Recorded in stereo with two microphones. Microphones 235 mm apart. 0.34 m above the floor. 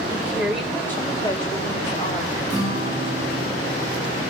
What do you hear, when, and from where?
0.1 s a woman speaking: 10° right (ahead or behind), 1.3 m; by 2.4 s 35° left (ahead or behind), 1.8 m
2.5 s a guitar: 25° right (ahead or behind), 6 m